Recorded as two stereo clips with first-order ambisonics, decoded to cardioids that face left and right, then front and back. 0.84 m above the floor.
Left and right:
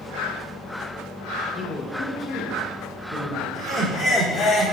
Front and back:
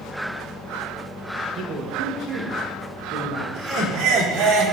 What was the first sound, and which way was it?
A man speaking, 150° left.